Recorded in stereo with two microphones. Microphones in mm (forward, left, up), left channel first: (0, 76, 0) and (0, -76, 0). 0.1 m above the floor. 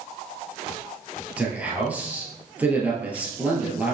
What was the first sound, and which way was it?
A man speaking, 10° right (ahead or behind).